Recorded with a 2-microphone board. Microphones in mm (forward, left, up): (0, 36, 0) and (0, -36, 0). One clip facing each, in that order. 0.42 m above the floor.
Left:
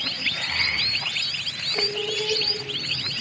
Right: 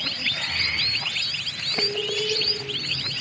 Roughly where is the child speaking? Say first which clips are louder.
Left 1 dB; left.